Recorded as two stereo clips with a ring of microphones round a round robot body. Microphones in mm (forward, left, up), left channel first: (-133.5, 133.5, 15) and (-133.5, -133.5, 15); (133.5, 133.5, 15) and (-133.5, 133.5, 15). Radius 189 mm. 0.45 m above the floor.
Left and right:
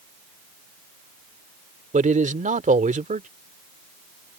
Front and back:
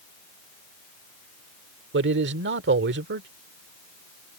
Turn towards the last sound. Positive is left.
turn(degrees=-145)